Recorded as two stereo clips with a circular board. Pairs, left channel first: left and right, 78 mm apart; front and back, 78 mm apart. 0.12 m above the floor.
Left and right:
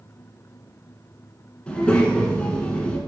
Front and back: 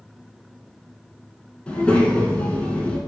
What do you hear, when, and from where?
1.7 s a child speaking: 45° left, 0.6 m